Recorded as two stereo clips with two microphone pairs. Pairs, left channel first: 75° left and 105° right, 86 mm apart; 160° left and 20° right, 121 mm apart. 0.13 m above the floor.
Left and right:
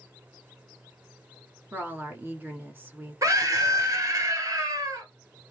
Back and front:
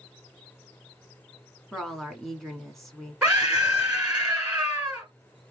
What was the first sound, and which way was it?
A woman speaking, 115° right.